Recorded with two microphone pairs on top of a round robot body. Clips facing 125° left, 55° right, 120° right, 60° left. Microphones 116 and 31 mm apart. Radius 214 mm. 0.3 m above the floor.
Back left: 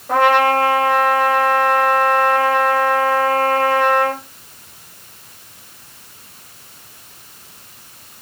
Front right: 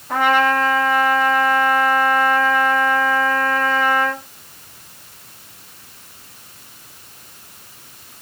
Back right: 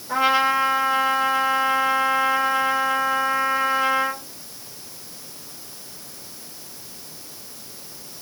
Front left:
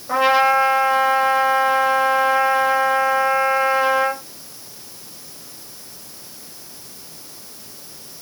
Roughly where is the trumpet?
Left.